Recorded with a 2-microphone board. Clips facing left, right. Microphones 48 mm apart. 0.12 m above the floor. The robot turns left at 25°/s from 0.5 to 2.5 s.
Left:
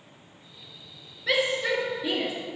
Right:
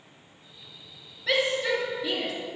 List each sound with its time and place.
1.3 s a shout: 5° left (ahead or behind), 2 m; by 2.3 s 25° left (ahead or behind), 2 m